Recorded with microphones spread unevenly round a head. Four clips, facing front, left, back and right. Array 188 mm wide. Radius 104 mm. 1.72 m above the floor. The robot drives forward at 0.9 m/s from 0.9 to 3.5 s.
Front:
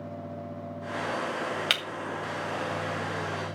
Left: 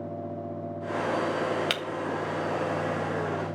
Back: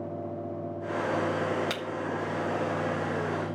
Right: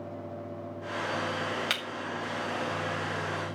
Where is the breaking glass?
75° left, 1.0 m; by 1.8 s 85° left, 1.0 m.